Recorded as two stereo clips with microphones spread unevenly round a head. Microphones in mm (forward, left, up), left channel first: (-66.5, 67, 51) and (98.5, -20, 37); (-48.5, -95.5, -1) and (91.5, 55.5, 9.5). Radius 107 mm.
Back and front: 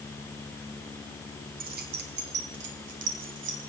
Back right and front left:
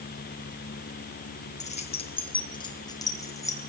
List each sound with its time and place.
1.6 s keys jangling: 75° right, 3.5 m; by 3.6 s 55° right, 6 m